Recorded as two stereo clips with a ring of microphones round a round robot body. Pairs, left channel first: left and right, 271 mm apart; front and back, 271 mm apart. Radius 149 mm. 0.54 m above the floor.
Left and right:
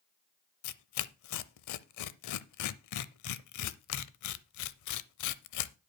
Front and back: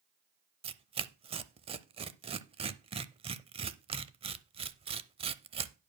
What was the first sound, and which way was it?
Tearing paper, 110° left.